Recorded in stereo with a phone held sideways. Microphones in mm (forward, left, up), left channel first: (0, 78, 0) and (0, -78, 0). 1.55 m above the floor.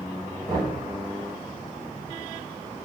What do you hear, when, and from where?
0.5 s knocking: 35° right (ahead or behind), 8.5 m